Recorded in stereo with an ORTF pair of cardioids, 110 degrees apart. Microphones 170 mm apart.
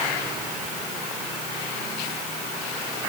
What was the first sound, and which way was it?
Only background noise.